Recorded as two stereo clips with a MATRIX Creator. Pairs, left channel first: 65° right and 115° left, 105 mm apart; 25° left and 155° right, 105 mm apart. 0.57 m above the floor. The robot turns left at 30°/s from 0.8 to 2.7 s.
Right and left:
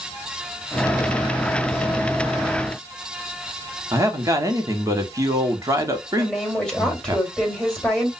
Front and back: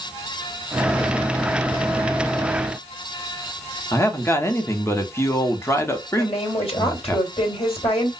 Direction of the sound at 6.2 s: 15° left.